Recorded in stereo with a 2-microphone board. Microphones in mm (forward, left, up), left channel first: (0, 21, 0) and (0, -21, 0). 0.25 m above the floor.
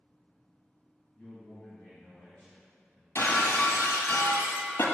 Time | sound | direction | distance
1.1 | a man speaking | 15° left (ahead or behind) | 1.9 m
3.1 | breaking glass | 80° left | 1.5 m